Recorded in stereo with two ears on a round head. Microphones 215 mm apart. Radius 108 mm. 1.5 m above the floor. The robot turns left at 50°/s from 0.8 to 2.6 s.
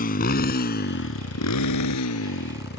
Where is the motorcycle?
40° left (ahead or behind); by 2.8 s 45° left (ahead or behind).